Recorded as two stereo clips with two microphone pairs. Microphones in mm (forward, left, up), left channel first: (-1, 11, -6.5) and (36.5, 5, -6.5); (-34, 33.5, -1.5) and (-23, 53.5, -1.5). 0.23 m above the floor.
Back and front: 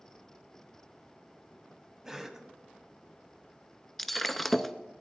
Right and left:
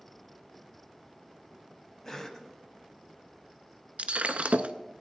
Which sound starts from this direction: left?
Breaking glass, at 4.0 s.